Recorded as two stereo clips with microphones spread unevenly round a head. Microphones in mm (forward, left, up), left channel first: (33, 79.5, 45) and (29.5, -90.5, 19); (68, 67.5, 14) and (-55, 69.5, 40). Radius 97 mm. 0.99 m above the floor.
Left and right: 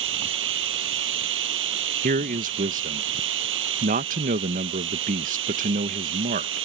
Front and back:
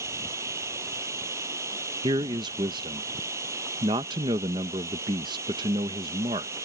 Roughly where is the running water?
Right.